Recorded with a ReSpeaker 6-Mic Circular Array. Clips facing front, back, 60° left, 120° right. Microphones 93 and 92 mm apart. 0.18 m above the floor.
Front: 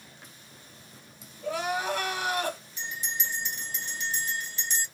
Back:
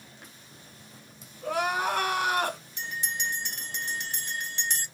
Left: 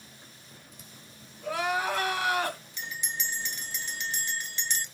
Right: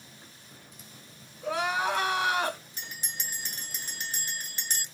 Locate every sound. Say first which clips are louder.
1.4 s crying: back 2 dB, right 1 dB; 175° left, 1.0 m
2.8 s a bell: back 2 dB, left 4 dB; 165° right, 0.8 m